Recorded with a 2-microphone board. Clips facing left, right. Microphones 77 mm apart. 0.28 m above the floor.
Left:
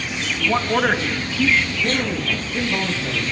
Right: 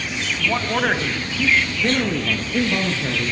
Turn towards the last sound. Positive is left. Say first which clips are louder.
# right 2 dB
turn(degrees=-75)  # may be behind; listen again after turning